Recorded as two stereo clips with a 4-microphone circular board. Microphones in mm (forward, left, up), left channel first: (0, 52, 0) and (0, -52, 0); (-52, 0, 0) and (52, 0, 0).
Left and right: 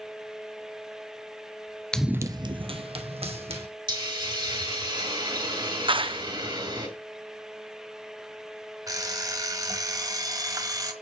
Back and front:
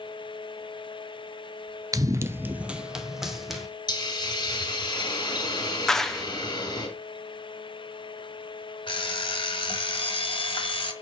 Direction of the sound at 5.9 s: 95° right.